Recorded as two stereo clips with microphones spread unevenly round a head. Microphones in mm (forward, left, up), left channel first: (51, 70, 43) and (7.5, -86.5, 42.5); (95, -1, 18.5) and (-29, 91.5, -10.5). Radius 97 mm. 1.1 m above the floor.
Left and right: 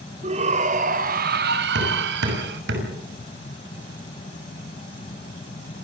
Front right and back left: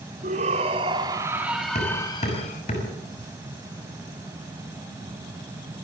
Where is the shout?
160° right, 3.5 m; by 2.6 s 95° right, 2.5 m.